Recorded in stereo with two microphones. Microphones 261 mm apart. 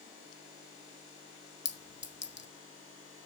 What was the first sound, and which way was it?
A clink, 45° left (ahead or behind).